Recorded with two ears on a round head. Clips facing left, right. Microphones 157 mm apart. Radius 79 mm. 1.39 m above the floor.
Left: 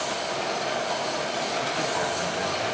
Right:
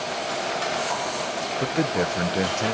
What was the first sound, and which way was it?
A man speaking, 65° right (ahead or behind).